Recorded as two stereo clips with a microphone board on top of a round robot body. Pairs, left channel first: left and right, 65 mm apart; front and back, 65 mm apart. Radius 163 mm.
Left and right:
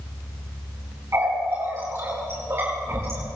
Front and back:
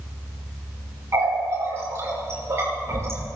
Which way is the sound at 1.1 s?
140° right.